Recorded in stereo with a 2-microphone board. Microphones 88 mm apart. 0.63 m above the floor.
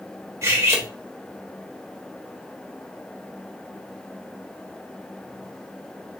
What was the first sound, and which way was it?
Cutlery clinking, 35° right (ahead or behind).